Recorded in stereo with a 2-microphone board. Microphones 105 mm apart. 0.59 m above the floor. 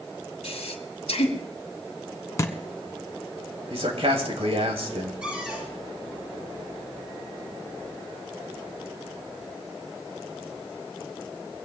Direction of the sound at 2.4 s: 30° left (ahead or behind).